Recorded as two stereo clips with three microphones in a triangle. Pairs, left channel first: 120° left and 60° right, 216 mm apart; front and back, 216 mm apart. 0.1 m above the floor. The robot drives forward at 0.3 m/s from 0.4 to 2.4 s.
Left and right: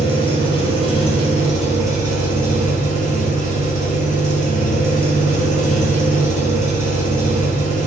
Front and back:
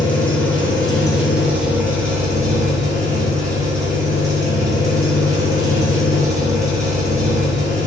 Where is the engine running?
75° left, 1.4 m; by 7.9 s 120° left, 1.4 m.